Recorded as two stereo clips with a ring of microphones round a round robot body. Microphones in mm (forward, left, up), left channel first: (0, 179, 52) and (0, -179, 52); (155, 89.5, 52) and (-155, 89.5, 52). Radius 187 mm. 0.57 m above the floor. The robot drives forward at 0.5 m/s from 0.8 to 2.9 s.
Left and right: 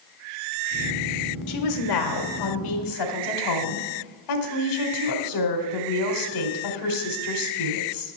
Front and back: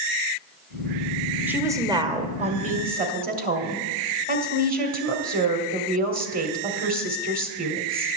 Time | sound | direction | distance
1.5 | a woman speaking | 95° left | 1.8 m